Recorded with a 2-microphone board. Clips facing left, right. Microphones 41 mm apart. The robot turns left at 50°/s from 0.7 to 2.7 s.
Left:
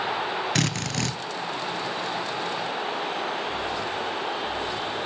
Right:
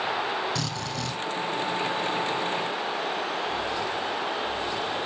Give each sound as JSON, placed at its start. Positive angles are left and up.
{"t": 0.6, "sound": "a drill", "side_deg": 60, "distance_m": 1.5}